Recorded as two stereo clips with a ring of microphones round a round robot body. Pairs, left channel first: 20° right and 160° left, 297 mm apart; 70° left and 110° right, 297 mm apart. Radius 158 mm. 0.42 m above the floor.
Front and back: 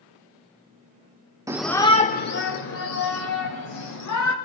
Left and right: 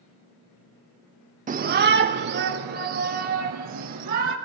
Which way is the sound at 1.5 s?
135° right.